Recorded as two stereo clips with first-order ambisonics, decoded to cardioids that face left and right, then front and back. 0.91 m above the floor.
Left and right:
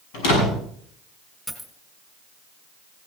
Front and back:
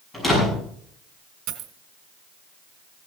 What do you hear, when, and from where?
0.1 s a door slam: 80° left, 6.5 m
1.5 s a dropped coin: 170° left, 1.8 m